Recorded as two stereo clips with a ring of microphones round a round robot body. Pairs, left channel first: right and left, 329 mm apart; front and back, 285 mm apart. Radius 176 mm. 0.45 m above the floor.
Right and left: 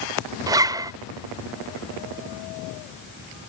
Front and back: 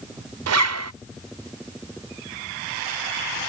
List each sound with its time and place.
0.5 s a zipper: 170° left